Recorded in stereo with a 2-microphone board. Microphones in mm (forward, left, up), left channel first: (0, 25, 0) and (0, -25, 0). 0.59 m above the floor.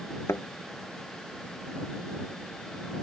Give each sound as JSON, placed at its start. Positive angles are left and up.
{"t": 0.3, "sound": "a thud", "side_deg": 80}